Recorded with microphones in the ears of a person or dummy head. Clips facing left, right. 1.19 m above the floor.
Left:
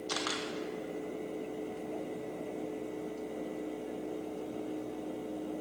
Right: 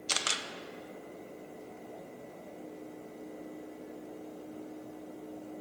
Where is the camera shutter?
30° right (ahead or behind), 0.6 m.